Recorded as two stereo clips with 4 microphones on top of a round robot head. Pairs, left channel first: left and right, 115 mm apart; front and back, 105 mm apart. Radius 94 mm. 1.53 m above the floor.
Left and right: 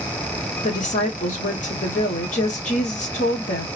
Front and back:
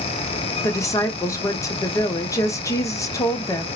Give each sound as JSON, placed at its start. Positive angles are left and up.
{"t": 0.6, "sound": "a woman speaking", "azimuth_deg": 60, "distance_m": 1.0}